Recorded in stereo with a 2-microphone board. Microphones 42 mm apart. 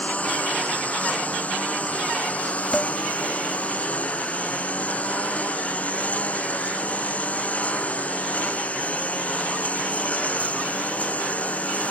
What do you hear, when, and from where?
0.0 s a lawn mower: 35° left (ahead or behind)
2.7 s dishes clattering: 15° left (ahead or behind)